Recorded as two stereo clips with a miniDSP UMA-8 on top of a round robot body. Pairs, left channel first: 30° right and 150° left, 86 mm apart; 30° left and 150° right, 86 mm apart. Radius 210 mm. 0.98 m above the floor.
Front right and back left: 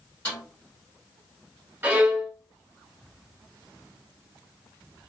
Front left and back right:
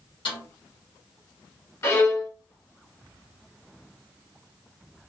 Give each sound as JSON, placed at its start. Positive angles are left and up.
{"t": 0.2, "sound": "a snare drum", "azimuth_deg": 40, "distance_m": 1.8}
{"t": 1.8, "sound": "a violin", "azimuth_deg": 80, "distance_m": 1.3}